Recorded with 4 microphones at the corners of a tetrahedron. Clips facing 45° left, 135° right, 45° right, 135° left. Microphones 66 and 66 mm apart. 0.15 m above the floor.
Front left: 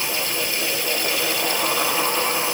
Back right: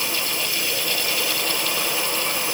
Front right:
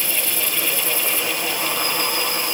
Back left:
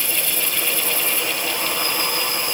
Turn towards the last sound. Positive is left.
No sound to turn to.